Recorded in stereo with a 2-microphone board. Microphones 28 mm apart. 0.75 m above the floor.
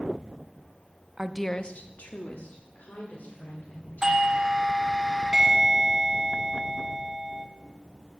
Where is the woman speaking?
25° right (ahead or behind), 0.6 m; by 4.5 s 75° left (ahead or behind), 4 m.